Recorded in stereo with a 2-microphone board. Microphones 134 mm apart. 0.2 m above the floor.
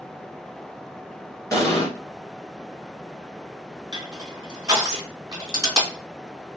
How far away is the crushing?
About 1.8 m.